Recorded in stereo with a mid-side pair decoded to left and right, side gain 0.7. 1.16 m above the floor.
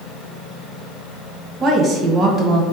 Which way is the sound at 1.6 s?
35° right.